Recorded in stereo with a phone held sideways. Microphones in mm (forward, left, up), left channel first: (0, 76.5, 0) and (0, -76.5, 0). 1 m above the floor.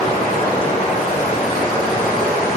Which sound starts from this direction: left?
Running water, at 0.0 s.